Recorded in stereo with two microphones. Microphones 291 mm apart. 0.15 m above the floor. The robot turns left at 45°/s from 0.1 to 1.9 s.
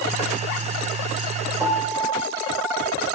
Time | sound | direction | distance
1.6 | a piano | 10° right (ahead or behind) | 0.6 m